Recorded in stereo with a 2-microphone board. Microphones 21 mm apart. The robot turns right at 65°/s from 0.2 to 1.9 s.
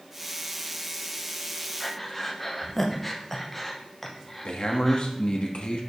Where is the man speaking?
60° left (ahead or behind), 1.3 m.